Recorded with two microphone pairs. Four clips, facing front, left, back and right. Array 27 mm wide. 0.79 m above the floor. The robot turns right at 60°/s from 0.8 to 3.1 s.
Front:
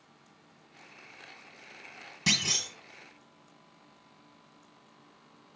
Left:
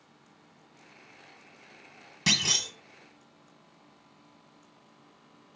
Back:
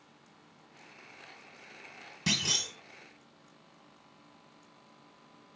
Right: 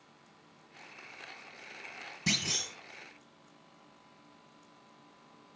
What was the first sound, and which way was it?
A clunk, 85° left.